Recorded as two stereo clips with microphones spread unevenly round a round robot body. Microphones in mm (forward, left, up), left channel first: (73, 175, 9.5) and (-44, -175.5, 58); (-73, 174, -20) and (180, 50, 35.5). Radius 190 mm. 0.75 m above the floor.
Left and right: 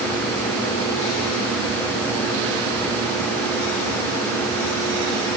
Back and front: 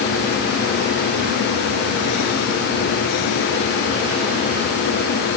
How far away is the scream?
I don't hear a scream.